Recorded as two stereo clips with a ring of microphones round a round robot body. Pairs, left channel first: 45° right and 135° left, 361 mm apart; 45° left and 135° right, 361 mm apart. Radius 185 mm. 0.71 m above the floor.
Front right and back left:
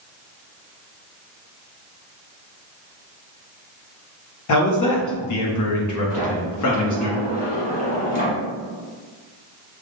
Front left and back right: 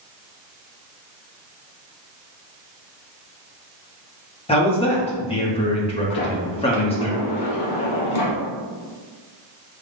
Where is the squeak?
No squeak in this recording.